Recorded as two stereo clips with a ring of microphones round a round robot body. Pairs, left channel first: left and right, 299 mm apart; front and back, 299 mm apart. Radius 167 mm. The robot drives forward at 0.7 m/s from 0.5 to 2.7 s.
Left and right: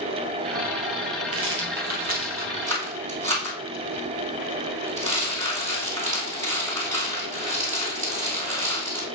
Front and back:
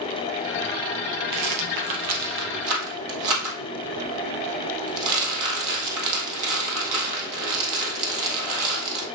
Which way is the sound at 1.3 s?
140° right.